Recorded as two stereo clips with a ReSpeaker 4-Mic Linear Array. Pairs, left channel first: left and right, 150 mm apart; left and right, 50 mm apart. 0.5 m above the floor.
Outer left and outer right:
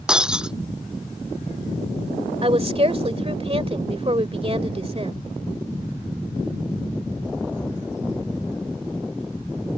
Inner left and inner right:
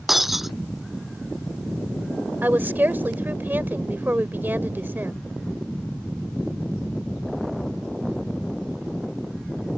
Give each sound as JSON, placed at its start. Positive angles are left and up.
{"t": 0.1, "sound": "breaking glass", "side_deg": -5}
{"t": 2.4, "sound": "a woman speaking", "side_deg": -40}